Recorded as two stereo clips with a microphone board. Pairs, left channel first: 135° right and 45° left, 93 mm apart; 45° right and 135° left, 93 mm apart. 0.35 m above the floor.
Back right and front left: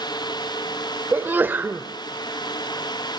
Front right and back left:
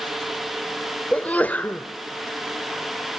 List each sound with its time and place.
1.1 s a sneeze: 5° left, 0.9 m